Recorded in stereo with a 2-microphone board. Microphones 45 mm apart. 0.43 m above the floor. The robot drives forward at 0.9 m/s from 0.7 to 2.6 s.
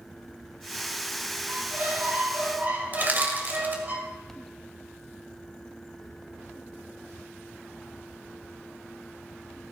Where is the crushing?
45° right (ahead or behind), 1.9 m.